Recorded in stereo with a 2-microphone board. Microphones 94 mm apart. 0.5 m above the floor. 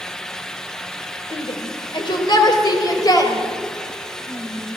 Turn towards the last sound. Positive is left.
turn(degrees=30)  # may be behind; listen again after turning